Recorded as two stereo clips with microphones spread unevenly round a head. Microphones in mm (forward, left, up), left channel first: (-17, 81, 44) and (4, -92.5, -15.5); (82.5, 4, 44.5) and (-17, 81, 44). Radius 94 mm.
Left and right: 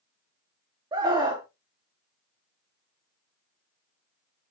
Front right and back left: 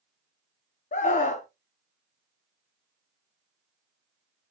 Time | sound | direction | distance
0.9 | a scream | 15° right | 0.7 m